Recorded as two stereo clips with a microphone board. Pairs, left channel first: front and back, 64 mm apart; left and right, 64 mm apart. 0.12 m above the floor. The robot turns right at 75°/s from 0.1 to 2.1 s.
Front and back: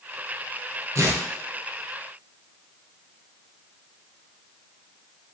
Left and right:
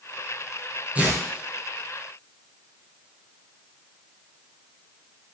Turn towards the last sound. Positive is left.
turn(degrees=-70)